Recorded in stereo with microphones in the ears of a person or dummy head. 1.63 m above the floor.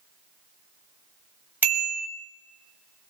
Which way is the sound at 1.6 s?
10° right (ahead or behind).